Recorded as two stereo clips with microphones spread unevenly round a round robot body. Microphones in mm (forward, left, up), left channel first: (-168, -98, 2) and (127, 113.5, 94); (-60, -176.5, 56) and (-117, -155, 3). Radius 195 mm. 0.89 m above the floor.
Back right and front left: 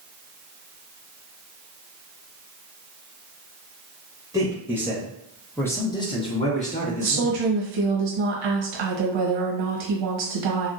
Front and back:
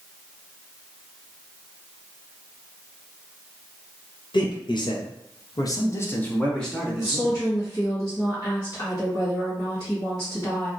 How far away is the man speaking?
About 1.1 m.